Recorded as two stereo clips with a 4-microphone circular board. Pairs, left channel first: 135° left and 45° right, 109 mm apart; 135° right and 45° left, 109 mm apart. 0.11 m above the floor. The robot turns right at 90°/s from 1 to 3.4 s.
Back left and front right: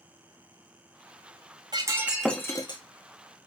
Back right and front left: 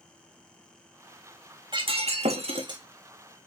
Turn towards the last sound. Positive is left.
turn(degrees=155)